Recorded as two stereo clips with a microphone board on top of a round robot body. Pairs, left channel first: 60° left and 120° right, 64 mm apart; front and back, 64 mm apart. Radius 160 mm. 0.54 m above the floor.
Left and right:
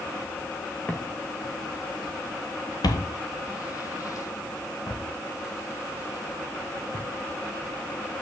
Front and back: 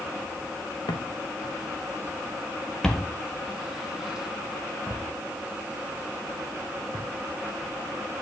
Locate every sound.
0.9 s footsteps: 5° right, 0.9 m; by 7.1 s 110° left, 3.5 m